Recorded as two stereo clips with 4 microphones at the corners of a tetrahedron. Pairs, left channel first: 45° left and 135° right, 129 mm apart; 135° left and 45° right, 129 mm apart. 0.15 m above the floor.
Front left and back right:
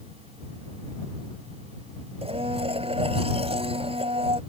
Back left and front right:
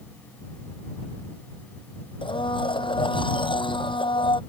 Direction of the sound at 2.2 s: 175° right.